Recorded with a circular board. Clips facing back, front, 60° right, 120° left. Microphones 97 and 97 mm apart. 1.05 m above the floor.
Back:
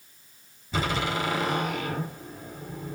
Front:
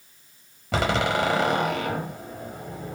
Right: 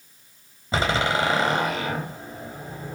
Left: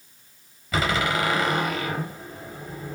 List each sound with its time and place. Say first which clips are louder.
0.7 s a door slam: front 5 dB, right 1 dB; straight ahead, 4.5 m